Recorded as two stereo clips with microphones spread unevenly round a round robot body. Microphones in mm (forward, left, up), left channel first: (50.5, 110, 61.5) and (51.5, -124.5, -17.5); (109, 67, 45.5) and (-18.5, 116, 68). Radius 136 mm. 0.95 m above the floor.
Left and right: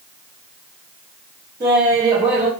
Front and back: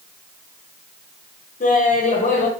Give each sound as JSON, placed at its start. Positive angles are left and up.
{"t": 1.6, "sound": "laughter", "azimuth_deg": -10, "distance_m": 1.1}